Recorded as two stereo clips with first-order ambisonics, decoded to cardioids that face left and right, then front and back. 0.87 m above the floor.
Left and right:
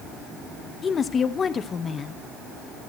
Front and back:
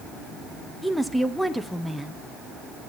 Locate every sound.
0.8 s a woman speaking: 90° left, 0.8 m